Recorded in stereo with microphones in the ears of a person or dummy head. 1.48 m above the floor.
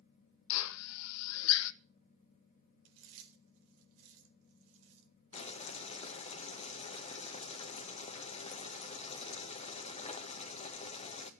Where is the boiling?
35° left (ahead or behind), 1.7 m.